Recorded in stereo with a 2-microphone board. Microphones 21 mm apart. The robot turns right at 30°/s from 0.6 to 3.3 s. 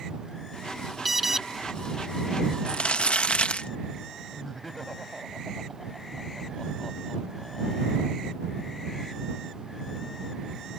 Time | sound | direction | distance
1.1 | an alarm | 10° right (ahead or behind) | ?
2.7 | crumpling | 65° left (ahead or behind) | ?
4.3 | laughter | 10° left (ahead or behind) | ?